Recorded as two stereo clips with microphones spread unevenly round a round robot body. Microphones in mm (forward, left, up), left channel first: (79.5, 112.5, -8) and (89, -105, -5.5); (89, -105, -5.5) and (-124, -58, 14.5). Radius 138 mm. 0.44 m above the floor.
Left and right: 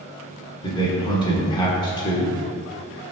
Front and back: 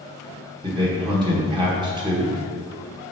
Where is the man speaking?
115° left, 1.2 m.